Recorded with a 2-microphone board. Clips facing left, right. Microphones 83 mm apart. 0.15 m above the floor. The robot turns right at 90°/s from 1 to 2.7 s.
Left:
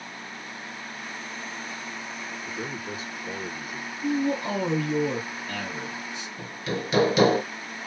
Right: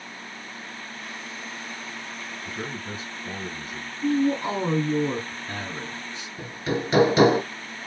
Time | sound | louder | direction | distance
2.5 | a man speaking | right 1 dB | 40° right (ahead or behind) | 2 m
4.0 | a man speaking | right 3 dB | 40° right (ahead or behind) | 2 m
6.4 | hammering | right 4 dB | 35° right (ahead or behind) | 1.5 m